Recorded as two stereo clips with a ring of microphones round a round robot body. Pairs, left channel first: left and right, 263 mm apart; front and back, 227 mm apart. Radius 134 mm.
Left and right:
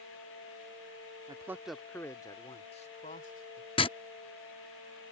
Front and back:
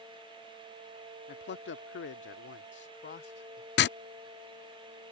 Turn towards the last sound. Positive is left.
turn(degrees=25)